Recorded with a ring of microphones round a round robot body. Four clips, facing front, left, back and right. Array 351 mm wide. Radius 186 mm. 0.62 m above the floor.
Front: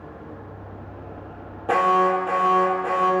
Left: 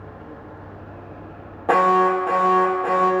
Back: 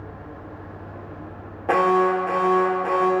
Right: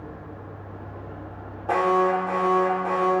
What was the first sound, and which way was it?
An alarm, 110° left.